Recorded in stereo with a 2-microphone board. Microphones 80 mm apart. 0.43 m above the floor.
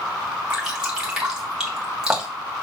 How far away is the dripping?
About 2.5 m.